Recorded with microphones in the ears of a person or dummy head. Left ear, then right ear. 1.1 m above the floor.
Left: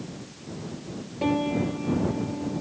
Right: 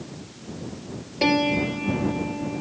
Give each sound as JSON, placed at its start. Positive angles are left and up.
{"t": 1.2, "sound": "a piano", "side_deg": -90}